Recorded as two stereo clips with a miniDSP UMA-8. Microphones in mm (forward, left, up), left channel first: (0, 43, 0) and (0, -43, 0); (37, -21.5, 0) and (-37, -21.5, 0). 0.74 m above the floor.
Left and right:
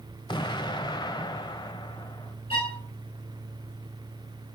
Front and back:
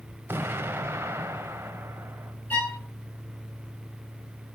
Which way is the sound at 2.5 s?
70° left.